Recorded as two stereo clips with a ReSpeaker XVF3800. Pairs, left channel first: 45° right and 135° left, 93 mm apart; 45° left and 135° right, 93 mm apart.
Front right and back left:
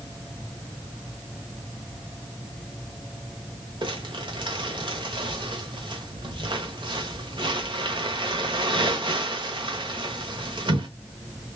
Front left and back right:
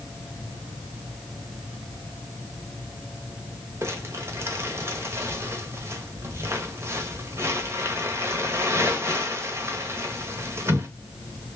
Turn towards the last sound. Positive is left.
turn(degrees=165)